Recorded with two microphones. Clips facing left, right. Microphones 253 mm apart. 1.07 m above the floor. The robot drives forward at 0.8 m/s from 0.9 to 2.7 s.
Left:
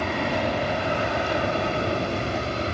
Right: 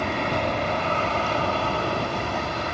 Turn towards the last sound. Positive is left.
turn(degrees=30)  # may be behind; listen again after turning